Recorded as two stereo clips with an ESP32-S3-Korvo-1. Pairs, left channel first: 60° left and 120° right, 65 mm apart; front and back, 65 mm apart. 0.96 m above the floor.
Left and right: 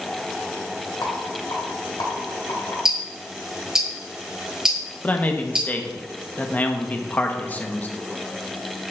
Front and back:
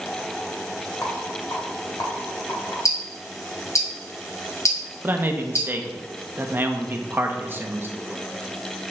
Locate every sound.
1.0 s a rattle: 40° left, 2.5 m
2.9 s ticking: 40° right, 1.2 m
5.0 s a man speaking: 125° left, 0.9 m